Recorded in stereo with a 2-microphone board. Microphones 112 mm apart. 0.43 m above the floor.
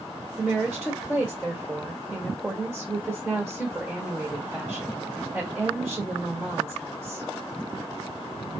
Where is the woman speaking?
5° right (ahead or behind), 1.4 m.